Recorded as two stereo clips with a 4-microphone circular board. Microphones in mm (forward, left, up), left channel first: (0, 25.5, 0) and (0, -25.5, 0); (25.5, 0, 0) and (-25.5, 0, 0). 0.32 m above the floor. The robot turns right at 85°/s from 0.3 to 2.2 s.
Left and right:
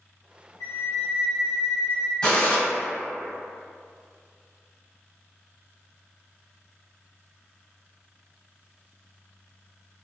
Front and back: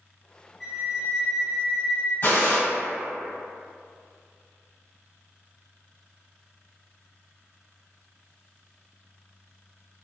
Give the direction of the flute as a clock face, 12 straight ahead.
9 o'clock.